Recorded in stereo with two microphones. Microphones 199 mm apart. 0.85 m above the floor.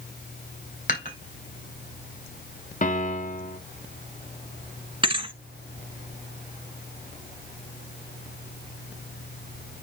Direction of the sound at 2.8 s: 40° left (ahead or behind).